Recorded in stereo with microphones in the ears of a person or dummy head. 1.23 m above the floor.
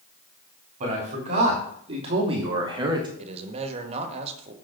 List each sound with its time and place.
0.8 s a man speaking: 35° right (ahead or behind), 4 m; by 3.1 s 20° right (ahead or behind), 2 m
3.2 s a man speaking: 40° right (ahead or behind), 1.6 m